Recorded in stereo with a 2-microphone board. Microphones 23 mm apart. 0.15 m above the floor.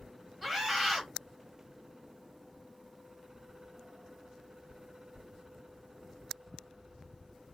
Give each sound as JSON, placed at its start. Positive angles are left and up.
{"t": 0.4, "sound": "a scream", "side_deg": 5, "distance_m": 1.8}